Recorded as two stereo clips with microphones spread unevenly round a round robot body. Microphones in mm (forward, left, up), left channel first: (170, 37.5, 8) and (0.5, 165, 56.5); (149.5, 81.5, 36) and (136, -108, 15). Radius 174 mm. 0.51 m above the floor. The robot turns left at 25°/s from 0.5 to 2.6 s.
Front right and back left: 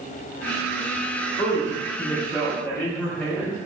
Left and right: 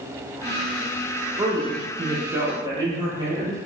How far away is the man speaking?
About 0.7 m.